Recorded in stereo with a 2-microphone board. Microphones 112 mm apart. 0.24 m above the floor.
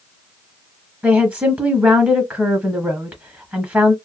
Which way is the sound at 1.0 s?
15° right (ahead or behind).